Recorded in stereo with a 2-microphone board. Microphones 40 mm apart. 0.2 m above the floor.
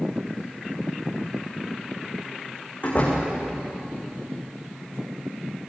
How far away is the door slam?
About 10 m.